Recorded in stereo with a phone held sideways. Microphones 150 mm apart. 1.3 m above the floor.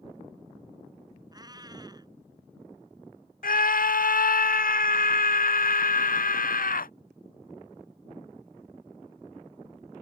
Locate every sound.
1.3 s a cat meowing: 25° right (ahead or behind)
3.4 s a scream: 70° left (ahead or behind)